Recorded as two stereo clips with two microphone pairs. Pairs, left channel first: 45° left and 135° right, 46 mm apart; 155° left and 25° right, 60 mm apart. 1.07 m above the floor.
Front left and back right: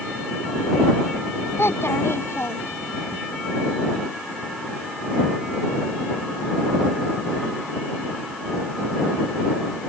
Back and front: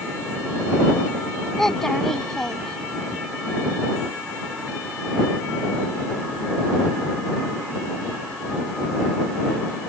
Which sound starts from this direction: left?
A child speaking, at 1.6 s.